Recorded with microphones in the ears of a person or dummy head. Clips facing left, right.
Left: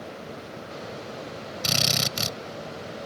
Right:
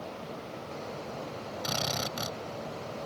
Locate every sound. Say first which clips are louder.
1.6 s a drill: left 4 dB; 40° left (ahead or behind)